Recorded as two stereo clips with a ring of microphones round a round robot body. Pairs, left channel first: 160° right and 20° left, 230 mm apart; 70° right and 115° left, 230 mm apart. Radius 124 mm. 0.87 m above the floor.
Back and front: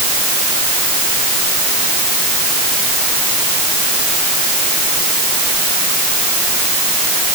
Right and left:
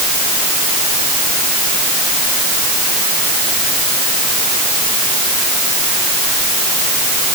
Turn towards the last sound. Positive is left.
No sound to turn to.